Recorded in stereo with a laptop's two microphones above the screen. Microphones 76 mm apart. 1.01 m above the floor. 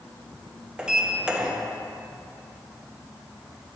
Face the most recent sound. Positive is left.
turn(degrees=-10)  # may be behind; listen again after turning